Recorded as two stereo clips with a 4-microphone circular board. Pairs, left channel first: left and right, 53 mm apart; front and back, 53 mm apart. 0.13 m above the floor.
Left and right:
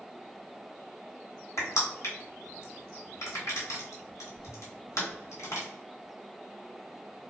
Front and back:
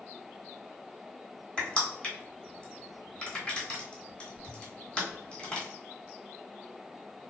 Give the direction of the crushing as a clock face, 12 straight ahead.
10 o'clock.